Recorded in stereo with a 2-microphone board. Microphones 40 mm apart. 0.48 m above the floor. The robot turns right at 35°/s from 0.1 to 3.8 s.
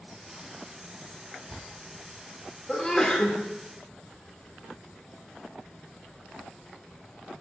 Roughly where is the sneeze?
Centre.